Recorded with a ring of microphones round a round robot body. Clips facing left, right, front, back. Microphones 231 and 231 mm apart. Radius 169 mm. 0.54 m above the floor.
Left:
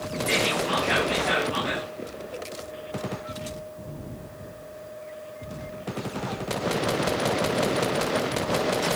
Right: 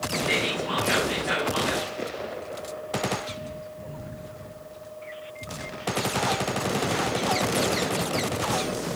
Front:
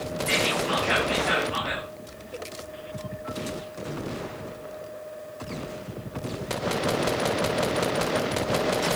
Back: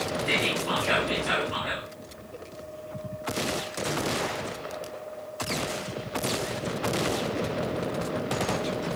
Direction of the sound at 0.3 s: 175° right.